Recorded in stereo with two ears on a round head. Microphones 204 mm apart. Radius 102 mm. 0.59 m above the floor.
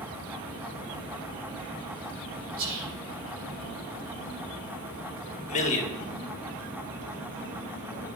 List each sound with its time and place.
2.6 s whispering: 65° right (ahead or behind), 1.9 m
5.5 s a man speaking: 30° left (ahead or behind), 1.5 m